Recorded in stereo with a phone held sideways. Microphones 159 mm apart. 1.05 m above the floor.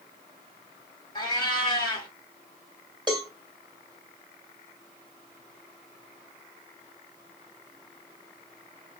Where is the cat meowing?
25° left (ahead or behind), 1.6 m.